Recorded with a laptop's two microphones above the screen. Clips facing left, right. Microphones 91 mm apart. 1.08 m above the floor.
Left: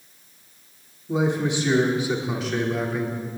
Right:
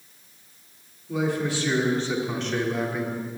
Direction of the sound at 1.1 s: 30° left (ahead or behind).